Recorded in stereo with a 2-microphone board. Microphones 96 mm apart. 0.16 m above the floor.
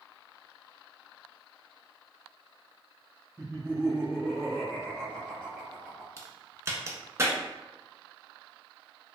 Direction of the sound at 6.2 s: 30° right (ahead or behind).